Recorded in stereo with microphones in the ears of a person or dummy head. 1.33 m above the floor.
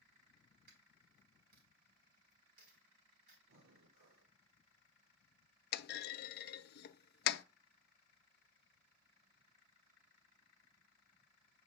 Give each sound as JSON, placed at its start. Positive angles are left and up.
{"t": 0.7, "sound": "a dropped coin", "side_deg": -45, "distance_m": 5.0}
{"t": 3.5, "sound": "breathing", "side_deg": -85, "distance_m": 1.6}
{"t": 5.7, "sound": "a clunk", "side_deg": 55, "distance_m": 0.5}